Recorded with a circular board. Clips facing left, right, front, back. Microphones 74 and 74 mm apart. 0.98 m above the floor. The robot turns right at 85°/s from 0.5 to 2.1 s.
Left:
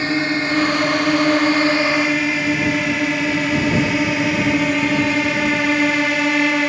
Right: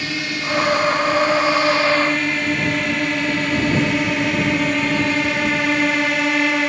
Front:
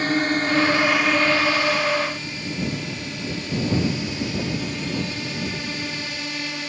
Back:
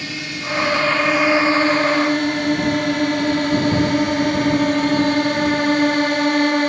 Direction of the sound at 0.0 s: 40° left.